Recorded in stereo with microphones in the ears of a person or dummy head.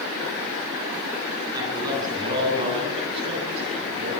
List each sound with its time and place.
1.5 s a man speaking: 20° right (ahead or behind), 10 m; by 4.2 s 40° right (ahead or behind), 7 m